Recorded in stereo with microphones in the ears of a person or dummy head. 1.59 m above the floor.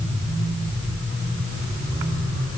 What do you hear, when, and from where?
Only background noise.